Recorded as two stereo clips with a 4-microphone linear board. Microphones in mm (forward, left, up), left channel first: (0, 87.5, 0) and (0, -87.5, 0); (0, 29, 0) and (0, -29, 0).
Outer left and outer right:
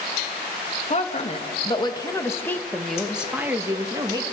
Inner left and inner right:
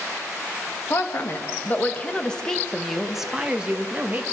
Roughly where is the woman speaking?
Left.